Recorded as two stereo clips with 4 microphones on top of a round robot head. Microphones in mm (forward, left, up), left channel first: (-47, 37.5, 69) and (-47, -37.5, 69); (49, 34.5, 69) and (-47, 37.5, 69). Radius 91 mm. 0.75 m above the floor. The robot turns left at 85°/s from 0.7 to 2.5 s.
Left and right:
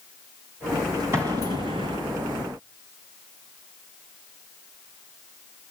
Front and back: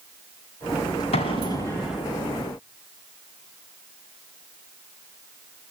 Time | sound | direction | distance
1.1 | an explosion | 25° right | 3 m